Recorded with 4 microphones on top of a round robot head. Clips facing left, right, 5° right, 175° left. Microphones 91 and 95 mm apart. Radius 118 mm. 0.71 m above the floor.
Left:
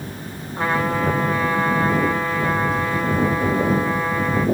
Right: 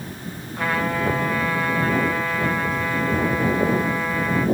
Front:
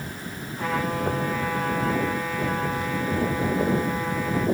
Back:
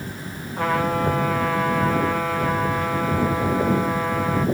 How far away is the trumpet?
About 6.5 m.